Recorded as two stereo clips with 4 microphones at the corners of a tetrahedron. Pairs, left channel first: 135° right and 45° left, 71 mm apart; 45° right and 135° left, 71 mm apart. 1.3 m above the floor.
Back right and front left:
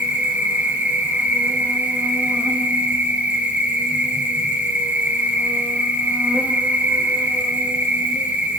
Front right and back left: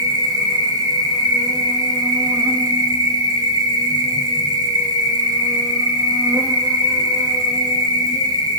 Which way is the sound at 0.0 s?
115° left.